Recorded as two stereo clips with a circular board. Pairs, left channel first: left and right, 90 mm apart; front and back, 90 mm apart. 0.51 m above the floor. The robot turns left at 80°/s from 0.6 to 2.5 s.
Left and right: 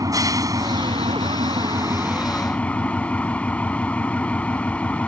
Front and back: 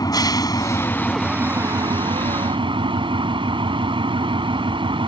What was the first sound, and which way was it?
An engine running, 40° right.